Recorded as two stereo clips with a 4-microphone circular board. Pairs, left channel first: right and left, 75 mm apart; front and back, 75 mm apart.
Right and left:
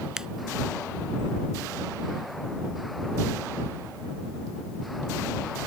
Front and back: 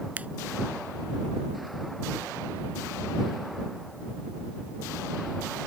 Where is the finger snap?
155° left.